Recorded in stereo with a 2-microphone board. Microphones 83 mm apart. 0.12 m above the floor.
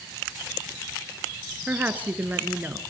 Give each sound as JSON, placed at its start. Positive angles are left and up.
{"t": 1.7, "sound": "a woman speaking", "side_deg": -20, "distance_m": 1.9}